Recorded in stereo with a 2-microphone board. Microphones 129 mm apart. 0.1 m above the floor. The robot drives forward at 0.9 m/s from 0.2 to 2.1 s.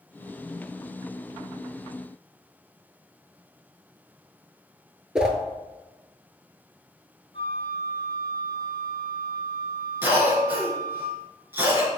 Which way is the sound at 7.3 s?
45° left (ahead or behind).